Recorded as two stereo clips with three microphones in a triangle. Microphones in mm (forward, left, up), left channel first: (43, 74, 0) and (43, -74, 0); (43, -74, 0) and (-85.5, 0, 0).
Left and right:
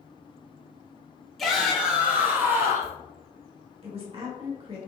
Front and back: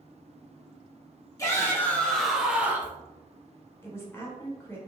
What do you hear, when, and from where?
1.4 s a shout: straight ahead, 0.8 m; by 3.0 s 145° right, 0.9 m
3.8 s a woman speaking: 95° right, 1.1 m